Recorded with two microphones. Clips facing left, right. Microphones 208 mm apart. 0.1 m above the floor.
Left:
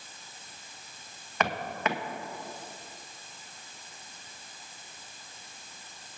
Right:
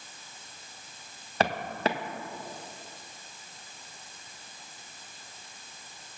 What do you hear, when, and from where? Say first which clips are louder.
1.4 s footsteps: right 3 dB; 30° right (ahead or behind), 1.6 m